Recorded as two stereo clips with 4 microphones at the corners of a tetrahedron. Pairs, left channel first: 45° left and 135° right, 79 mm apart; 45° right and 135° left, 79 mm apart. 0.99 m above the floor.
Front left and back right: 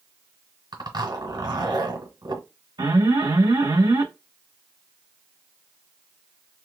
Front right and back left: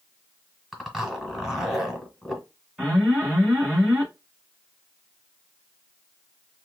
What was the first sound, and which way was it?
A zipper, 140° right.